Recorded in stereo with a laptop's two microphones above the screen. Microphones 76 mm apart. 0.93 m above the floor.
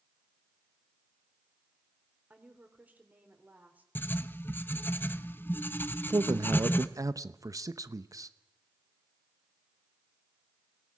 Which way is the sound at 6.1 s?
45° right (ahead or behind).